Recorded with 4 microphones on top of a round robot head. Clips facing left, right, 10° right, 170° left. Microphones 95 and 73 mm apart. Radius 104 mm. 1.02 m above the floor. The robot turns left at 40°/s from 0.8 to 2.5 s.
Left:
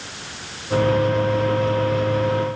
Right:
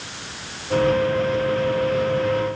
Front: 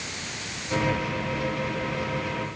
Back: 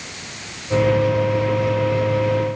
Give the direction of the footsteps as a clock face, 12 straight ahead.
I don't hear footsteps.